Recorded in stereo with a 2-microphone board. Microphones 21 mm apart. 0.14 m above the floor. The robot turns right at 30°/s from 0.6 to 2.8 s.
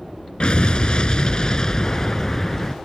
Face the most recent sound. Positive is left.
turn(degrees=165)